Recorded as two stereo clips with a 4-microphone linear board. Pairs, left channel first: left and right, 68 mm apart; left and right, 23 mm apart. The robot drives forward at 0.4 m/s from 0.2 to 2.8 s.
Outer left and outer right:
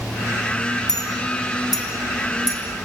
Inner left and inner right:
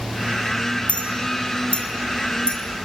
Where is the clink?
70° left (ahead or behind), 2.5 m; by 2.6 s 60° left (ahead or behind), 3 m.